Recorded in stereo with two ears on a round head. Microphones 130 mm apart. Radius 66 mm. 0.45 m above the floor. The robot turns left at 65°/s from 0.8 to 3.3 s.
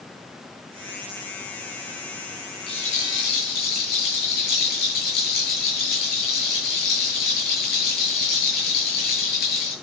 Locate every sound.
2.7 s a rattle: 140° left, 8.5 m; by 9.7 s 100° left, 8.5 m